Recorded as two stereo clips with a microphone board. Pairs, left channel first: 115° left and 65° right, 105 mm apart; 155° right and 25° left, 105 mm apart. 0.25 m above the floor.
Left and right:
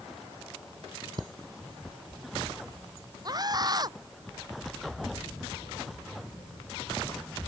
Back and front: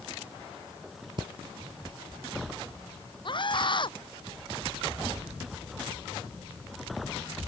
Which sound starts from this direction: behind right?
A scream, at 3.2 s.